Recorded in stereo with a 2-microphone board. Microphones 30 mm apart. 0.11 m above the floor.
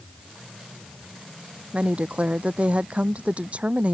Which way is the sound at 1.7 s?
45° right (ahead or behind).